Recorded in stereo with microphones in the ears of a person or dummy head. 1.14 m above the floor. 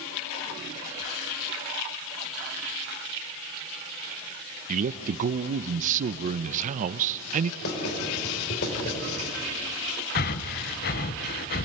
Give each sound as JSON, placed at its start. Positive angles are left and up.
{"t": 4.7, "sound": "a man speaking", "side_deg": -45, "distance_m": 0.5}
{"t": 7.6, "sound": "writing", "side_deg": 60, "distance_m": 5.5}
{"t": 10.2, "sound": "breathing", "side_deg": 40, "distance_m": 0.9}